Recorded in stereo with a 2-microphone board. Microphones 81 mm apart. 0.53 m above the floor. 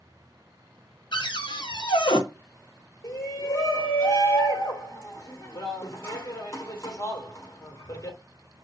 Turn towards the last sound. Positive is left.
turn(degrees=35)  # may be behind; listen again after turning